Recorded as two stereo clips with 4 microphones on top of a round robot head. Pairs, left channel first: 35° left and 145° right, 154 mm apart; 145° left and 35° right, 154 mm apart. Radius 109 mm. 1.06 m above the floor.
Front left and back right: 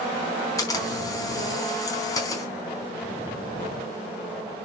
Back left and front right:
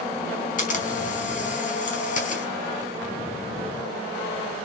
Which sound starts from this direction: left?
A camera shutter, at 0.6 s.